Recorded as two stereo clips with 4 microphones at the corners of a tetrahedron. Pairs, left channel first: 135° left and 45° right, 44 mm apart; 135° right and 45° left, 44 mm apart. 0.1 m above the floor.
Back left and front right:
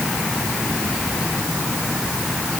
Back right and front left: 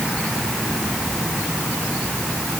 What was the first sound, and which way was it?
Only background noise.